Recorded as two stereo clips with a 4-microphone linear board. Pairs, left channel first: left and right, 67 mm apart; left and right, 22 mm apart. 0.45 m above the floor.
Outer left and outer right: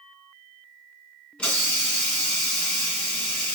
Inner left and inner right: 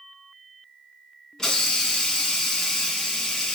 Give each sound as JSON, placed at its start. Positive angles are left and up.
{"t": 1.4, "sound": "a hiss", "side_deg": 20, "distance_m": 1.6}